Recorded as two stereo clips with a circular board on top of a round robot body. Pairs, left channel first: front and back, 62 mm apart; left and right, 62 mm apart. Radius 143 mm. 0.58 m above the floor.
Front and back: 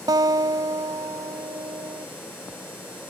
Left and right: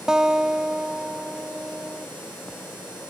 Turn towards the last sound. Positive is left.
turn(degrees=-170)